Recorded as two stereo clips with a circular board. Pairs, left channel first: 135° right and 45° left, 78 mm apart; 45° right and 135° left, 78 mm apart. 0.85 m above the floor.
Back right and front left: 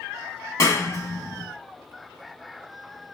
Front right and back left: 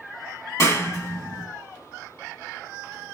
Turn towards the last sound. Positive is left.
turn(degrees=-90)